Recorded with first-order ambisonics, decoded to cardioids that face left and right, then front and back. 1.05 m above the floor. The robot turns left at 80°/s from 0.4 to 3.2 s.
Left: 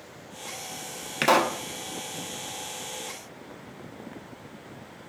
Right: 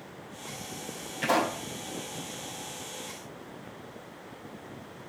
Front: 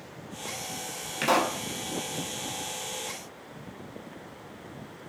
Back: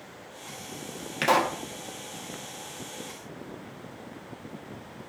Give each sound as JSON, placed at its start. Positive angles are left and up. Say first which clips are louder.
{"t": 1.2, "sound": "a pop", "louder": "left 5 dB, back 1 dB", "azimuth_deg": 100, "distance_m": 1.3}